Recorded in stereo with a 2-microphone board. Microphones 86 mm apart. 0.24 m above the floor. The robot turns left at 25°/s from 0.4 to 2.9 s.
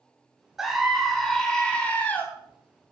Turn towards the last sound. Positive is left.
turn(degrees=130)